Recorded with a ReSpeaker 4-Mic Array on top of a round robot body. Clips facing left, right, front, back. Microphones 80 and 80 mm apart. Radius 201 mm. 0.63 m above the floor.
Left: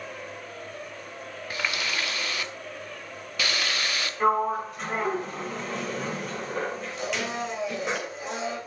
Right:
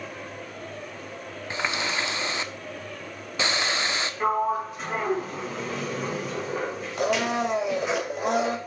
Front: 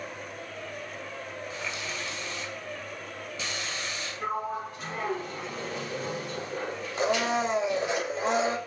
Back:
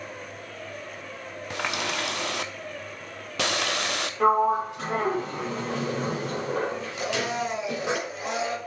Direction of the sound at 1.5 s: 155° right.